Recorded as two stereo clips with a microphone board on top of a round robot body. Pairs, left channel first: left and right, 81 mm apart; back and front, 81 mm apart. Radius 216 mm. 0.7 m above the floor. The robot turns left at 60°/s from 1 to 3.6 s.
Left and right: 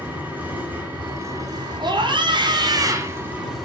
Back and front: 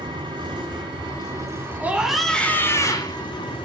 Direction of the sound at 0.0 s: 20° right.